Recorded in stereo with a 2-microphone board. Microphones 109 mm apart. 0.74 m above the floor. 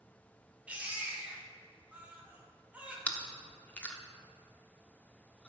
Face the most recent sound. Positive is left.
turn(degrees=10)  # may be behind; listen again after turning